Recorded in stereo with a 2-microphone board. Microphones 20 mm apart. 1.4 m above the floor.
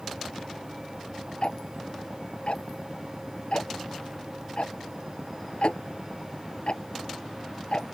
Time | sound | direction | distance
1.4 | ticking | 65° left (ahead or behind) | ?